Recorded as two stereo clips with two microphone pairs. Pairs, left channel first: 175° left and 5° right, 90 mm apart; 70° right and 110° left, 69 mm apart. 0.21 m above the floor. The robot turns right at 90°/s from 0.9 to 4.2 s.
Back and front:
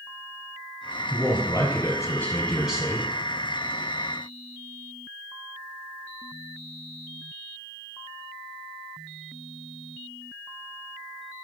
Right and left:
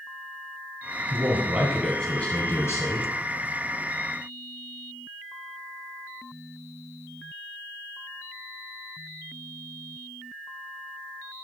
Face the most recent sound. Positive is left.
turn(degrees=50)